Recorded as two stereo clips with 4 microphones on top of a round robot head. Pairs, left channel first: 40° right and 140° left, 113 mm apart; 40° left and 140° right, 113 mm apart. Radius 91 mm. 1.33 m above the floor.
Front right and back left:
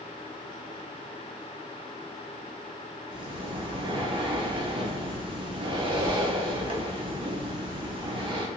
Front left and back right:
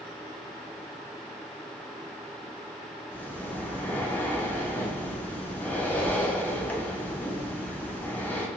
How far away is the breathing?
About 0.7 m.